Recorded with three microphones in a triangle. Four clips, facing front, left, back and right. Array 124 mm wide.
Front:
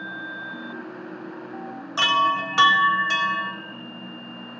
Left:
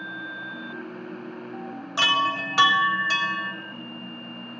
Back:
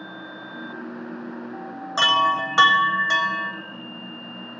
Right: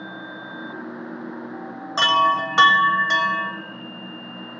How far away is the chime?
About 1.2 m.